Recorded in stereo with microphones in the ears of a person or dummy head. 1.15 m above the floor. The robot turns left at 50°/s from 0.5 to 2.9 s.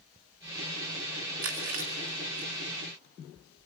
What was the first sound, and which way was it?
Chewing, 55° right (ahead or behind).